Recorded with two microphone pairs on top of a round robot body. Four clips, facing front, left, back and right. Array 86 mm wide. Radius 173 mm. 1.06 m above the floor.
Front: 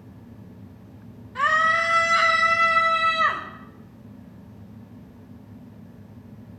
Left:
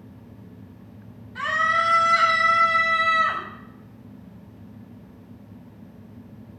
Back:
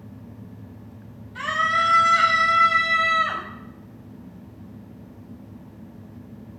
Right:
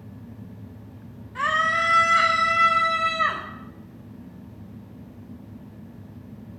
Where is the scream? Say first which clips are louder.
Even, front 2 dB; 45° right, 4.5 m.